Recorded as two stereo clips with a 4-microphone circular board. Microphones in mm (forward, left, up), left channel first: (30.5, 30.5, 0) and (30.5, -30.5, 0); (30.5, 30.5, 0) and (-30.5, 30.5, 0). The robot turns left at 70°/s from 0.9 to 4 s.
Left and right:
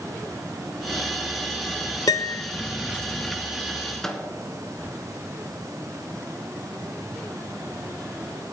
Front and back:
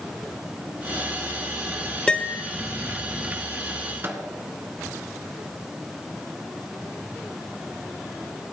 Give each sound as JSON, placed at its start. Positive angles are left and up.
{"t": 2.1, "sound": "a piano", "azimuth_deg": 75, "distance_m": 0.5}
{"t": 4.0, "sound": "a microwave", "azimuth_deg": 165, "distance_m": 1.5}